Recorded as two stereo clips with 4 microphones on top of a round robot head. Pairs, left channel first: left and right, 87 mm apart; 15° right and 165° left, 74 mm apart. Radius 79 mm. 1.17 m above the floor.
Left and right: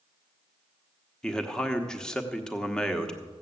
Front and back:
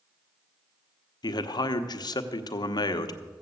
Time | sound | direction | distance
1.2 | a man speaking | 5° left | 1.1 m